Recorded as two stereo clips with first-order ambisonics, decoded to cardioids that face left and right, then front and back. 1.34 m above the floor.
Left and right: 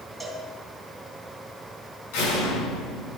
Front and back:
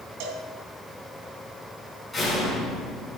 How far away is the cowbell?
About 3 m.